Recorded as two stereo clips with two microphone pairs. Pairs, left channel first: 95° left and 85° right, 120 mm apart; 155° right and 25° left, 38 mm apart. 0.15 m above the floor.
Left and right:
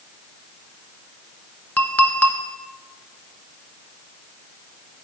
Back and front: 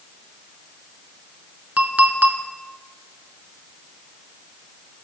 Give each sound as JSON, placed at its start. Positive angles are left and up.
{"t": 1.8, "sound": "a clink", "azimuth_deg": 30, "distance_m": 0.8}